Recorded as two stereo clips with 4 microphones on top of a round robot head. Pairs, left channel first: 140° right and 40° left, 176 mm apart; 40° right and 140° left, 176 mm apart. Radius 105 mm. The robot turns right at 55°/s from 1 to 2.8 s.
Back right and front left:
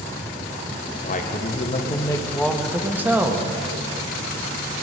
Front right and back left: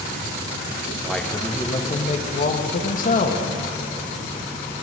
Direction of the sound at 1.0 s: 130° right.